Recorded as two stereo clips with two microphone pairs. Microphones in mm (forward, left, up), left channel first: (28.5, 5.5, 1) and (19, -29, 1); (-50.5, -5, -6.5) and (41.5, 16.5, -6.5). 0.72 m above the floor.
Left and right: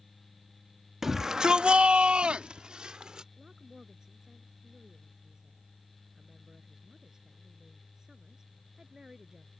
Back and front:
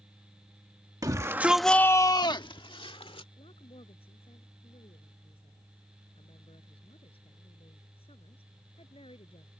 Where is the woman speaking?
175° right.